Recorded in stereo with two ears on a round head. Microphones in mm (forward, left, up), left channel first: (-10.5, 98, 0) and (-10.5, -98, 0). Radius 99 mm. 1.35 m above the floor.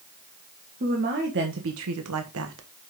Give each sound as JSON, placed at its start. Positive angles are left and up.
{"t": 0.8, "sound": "a woman speaking", "side_deg": -40, "distance_m": 1.9}